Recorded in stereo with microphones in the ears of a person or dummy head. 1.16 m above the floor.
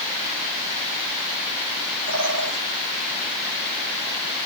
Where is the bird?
80° right, 6 m.